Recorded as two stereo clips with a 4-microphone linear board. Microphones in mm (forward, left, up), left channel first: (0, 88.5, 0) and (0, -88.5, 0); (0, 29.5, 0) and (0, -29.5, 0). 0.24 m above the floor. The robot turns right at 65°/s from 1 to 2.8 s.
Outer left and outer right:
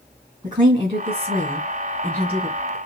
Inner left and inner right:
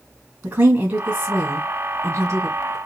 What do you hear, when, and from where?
0.4 s a woman speaking: 125° right, 2.5 m; by 2.8 s 10° right, 2.5 m